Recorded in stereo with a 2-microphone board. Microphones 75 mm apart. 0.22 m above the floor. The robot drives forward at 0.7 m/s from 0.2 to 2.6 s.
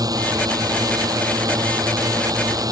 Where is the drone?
60° right (ahead or behind); by 2.7 s 55° right (ahead or behind).